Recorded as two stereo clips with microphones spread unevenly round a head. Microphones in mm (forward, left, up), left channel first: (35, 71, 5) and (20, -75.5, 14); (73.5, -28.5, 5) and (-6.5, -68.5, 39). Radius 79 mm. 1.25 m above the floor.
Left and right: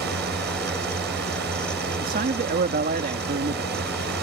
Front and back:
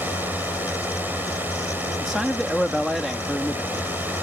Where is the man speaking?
70° right.